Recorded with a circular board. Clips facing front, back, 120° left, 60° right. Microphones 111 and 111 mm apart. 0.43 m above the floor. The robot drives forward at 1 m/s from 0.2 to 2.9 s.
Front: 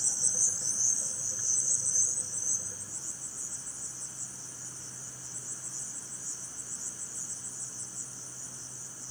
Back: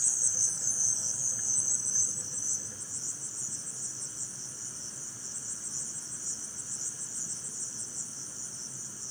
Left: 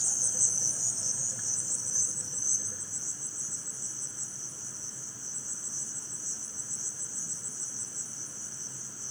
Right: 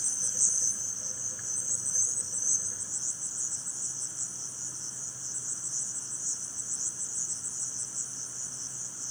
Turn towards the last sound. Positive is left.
turn(degrees=160)